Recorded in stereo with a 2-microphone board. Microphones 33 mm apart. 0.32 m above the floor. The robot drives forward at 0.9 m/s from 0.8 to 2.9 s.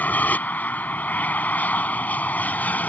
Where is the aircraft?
55° left (ahead or behind).